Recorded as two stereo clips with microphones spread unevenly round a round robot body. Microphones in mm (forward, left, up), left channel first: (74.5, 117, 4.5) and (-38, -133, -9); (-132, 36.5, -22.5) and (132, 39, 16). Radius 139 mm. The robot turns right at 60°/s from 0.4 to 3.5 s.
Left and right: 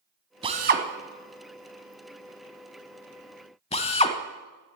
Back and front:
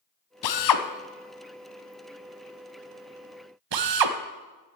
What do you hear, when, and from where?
0.4 s a drill: 170° left, 1.0 m; by 4.2 s 5° right, 1.0 m